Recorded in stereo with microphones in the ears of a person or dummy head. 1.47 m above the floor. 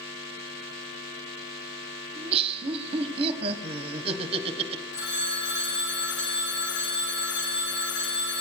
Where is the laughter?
30° right (ahead or behind), 1.1 m.